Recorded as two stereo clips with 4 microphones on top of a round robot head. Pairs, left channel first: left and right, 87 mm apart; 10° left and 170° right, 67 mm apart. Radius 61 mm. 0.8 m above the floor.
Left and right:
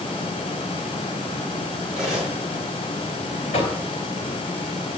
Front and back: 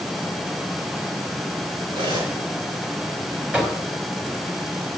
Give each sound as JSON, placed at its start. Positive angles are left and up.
{"t": 1.9, "sound": "cutlery clinking", "azimuth_deg": -170, "distance_m": 5.5}
{"t": 3.5, "sound": "knocking", "azimuth_deg": 120, "distance_m": 3.5}